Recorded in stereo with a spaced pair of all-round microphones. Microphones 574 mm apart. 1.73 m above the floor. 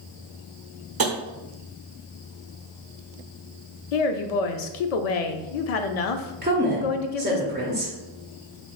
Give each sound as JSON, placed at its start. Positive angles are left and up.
{"t": 1.0, "sound": "tapping", "side_deg": -40, "distance_m": 0.5}
{"t": 3.9, "sound": "a woman speaking", "side_deg": 85, "distance_m": 0.5}
{"t": 6.4, "sound": "a woman speaking", "side_deg": -15, "distance_m": 0.6}